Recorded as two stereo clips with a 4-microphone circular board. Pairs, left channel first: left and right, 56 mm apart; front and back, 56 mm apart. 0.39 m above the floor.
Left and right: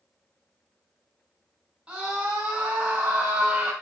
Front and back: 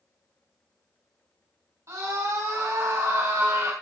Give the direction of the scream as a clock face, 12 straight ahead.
5 o'clock.